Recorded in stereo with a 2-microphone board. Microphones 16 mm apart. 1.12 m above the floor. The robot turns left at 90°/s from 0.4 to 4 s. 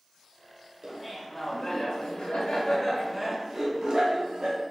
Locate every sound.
0.8 s laughter: 150° right, 1.0 m; by 4.6 s 75° right, 1.0 m